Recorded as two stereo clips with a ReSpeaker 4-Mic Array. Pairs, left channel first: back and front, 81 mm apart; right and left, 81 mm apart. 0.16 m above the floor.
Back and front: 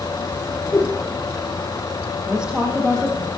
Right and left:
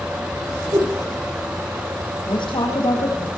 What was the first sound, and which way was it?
A whoosh, 125° left.